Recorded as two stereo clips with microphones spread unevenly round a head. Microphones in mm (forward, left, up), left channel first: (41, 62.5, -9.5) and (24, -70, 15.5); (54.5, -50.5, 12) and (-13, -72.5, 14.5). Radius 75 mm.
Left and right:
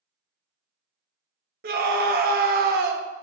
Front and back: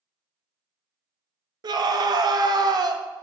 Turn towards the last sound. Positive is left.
turn(degrees=-135)